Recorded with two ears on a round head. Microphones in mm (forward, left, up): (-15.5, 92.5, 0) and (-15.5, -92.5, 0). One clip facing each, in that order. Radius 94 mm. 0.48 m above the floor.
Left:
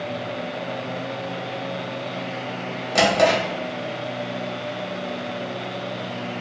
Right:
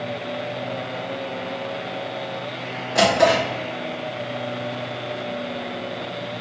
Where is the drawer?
60° left (ahead or behind), 1.2 m.